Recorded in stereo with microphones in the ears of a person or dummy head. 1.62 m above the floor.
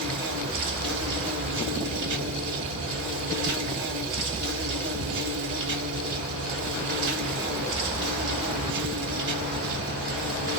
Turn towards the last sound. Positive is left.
turn(degrees=-60)  # may be behind; listen again after turning